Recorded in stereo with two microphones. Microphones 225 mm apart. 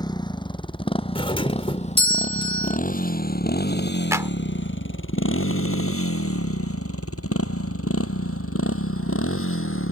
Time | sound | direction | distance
0.0 | a motorcycle | 20° left (ahead or behind) | ?
1.1 | a doorbell | 25° left (ahead or behind) | ?
4.1 | a clap | 15° right (ahead or behind) | ?